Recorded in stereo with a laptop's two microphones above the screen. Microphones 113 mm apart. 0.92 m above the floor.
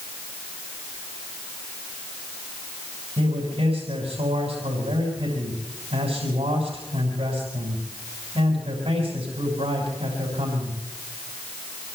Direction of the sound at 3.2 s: 65° right (ahead or behind).